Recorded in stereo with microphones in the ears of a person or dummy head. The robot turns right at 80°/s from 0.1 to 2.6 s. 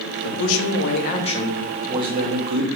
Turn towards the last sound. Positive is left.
turn(degrees=-100)